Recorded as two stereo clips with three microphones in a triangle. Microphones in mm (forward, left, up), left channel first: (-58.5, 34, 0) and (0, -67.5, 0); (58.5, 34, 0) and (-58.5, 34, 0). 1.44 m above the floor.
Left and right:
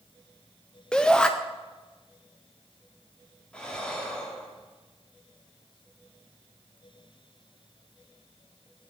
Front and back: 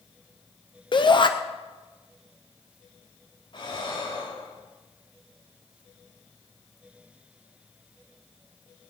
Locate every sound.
0.9 s a shout: 40° left, 0.7 m
3.5 s breathing: 40° left, 2.5 m